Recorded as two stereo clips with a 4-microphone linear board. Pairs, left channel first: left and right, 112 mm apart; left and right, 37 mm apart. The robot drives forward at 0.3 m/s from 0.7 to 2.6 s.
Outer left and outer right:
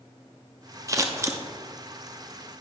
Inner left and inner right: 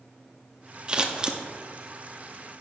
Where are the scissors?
30° right (ahead or behind), 0.7 m; by 1.4 s 25° right (ahead or behind), 0.8 m.